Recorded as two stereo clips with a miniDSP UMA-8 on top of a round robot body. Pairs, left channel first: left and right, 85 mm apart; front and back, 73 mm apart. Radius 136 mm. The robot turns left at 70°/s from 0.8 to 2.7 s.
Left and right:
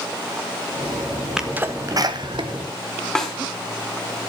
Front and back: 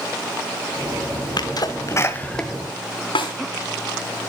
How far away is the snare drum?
About 4 m.